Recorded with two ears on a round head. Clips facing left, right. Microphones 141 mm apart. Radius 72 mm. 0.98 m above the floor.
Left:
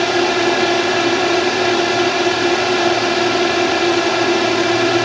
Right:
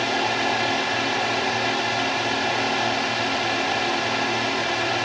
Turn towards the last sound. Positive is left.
turn(degrees=60)  # may be behind; listen again after turning